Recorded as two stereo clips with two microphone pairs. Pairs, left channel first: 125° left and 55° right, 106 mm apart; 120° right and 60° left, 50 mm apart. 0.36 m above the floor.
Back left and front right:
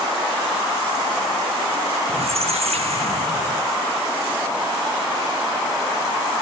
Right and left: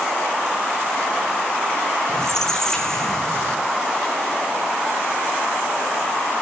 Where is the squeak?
45° right, 1.4 m.